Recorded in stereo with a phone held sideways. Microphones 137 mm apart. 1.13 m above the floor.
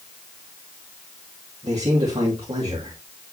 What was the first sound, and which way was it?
A man speaking, 50° right (ahead or behind).